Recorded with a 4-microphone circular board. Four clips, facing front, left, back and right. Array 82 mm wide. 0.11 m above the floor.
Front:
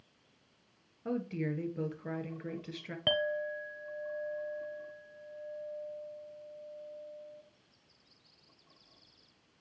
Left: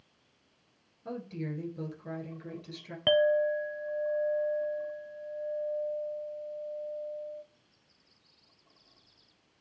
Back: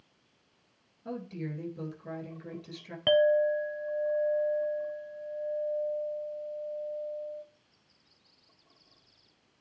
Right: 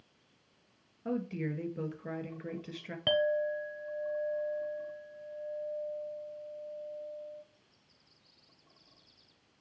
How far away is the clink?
About 0.6 m.